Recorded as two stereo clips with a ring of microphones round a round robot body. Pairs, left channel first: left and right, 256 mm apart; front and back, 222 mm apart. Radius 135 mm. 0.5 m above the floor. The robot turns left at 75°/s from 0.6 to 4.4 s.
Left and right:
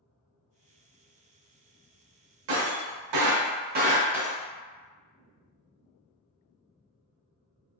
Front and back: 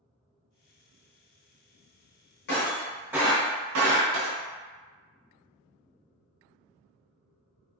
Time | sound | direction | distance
2.5 | breaking glass | 50° right | 0.7 m